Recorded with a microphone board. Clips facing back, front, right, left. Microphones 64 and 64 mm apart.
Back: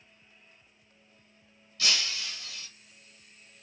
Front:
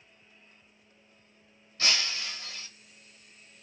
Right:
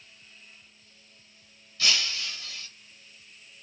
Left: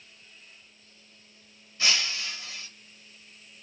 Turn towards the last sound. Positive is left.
turn(degrees=35)